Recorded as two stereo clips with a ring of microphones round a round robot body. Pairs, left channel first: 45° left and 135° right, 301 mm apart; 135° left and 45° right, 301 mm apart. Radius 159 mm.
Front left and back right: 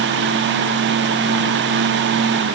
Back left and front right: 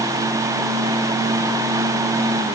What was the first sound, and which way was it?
Only background noise.